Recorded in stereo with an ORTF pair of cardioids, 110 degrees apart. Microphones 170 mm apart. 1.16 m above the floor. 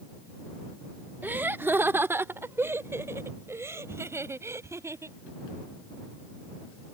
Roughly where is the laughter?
Ahead.